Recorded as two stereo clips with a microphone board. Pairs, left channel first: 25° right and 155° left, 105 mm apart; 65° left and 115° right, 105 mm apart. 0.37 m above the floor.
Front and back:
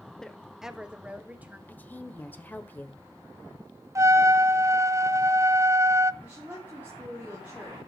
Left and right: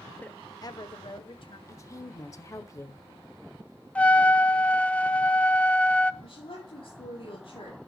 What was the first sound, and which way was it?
A woman speaking, 50° left.